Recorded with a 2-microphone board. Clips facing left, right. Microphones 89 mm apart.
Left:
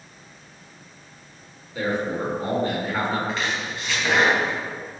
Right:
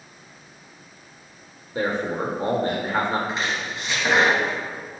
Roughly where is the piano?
No piano in this recording.